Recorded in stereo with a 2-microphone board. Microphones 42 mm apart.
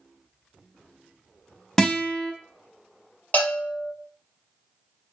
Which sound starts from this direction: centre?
A guitar, at 1.8 s.